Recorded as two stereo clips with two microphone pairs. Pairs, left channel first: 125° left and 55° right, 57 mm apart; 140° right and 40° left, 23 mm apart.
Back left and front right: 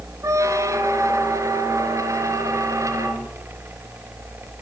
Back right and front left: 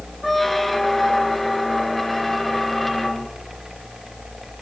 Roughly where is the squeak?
Ahead right.